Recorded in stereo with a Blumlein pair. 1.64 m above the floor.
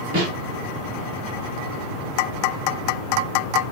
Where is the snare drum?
50° right, 2 m.